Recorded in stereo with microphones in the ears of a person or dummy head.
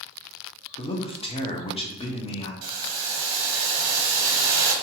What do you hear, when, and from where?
0.8 s a man speaking: 25° left (ahead or behind), 0.6 m
2.6 s boiling: 60° right (ahead or behind), 0.6 m